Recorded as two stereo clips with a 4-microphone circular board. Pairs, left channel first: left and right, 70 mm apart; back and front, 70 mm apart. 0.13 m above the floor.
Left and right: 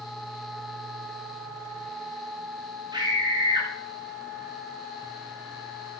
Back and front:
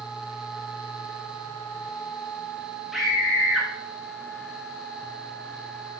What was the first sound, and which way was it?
A scream, 85° right.